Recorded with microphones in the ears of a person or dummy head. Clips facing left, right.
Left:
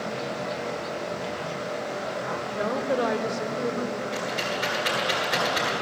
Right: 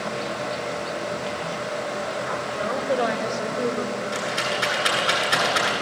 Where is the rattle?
10° right (ahead or behind), 10 m.